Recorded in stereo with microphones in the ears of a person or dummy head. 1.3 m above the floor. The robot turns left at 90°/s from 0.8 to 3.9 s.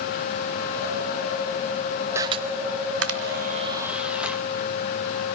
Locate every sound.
2.1 s a camera shutter: 15° right (ahead or behind), 1.9 m; by 4.4 s 10° right (ahead or behind), 1.9 m